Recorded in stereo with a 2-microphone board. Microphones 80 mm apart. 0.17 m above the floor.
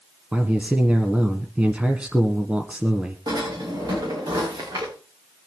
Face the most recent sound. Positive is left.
turn(degrees=-60)  # may be behind; listen again after turning